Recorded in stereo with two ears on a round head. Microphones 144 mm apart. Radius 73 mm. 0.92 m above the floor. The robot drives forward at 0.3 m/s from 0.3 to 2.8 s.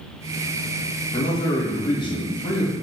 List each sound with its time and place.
1.1 s a man speaking: 35° left (ahead or behind), 1.2 m; by 2.7 s 25° left (ahead or behind), 1.5 m